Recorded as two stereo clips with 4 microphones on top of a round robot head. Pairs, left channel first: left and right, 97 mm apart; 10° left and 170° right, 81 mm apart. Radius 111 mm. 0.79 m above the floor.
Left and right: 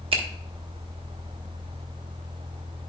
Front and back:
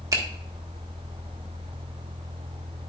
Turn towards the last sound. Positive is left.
turn(degrees=-120)